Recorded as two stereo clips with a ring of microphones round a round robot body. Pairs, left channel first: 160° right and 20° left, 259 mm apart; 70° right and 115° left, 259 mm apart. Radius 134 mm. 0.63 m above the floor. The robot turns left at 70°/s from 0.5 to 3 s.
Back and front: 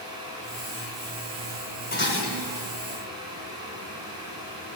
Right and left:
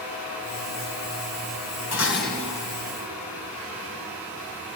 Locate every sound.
1.9 s dishes clattering: 100° right, 3 m; by 2.7 s 155° right, 3 m